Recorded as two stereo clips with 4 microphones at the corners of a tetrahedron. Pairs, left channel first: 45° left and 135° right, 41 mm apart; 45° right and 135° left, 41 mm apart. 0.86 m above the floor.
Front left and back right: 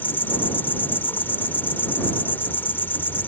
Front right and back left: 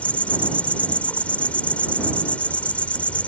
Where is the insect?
10° left.